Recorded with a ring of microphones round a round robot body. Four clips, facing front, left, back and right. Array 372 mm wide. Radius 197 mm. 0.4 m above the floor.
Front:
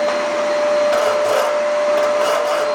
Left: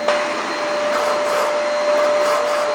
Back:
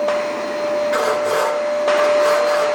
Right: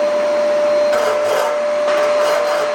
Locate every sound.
0.9 s sawing: 35° right, 6.5 m